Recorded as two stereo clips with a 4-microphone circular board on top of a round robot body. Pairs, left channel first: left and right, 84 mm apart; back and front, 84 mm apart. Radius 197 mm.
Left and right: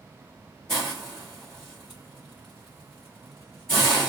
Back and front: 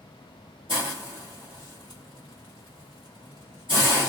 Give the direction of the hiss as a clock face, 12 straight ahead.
12 o'clock.